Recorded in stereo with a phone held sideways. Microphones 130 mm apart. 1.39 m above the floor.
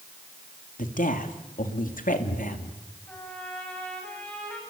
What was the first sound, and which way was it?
A woman speaking, 90° left.